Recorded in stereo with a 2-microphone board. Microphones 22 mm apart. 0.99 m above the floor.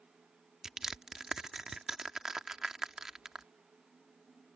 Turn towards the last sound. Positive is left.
turn(degrees=-20)  # may be behind; listen again after turning